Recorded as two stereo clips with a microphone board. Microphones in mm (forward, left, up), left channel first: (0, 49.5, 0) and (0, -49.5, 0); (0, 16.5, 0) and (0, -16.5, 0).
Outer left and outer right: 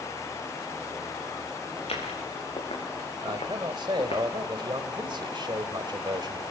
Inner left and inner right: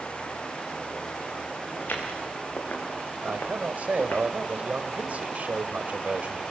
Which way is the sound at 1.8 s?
85° left.